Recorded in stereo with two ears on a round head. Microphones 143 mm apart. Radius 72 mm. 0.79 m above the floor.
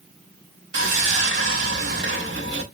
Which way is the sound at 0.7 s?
80° right.